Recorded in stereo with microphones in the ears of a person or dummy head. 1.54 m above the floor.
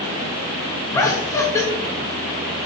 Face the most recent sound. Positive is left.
turn(degrees=15)  # may be behind; listen again after turning